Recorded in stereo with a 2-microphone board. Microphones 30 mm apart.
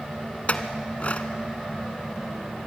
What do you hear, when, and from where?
0.5 s a clink: 50° left (ahead or behind), 1.2 m